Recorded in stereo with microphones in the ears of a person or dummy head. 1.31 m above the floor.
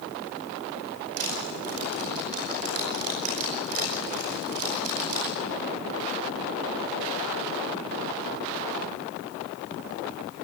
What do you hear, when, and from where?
1.2 s crushing: 90° right, 9.5 m